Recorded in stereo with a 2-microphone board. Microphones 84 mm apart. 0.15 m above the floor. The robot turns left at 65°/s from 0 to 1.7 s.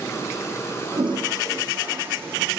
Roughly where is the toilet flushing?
Right.